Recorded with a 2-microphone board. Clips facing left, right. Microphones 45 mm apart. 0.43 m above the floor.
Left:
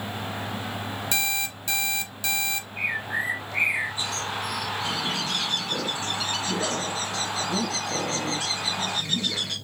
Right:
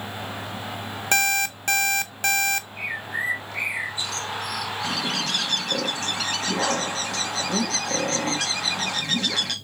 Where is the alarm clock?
55° right (ahead or behind), 0.5 m.